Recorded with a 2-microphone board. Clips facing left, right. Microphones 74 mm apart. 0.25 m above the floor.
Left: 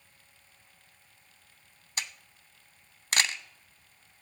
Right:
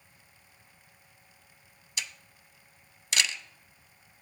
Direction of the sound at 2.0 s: 45° left (ahead or behind).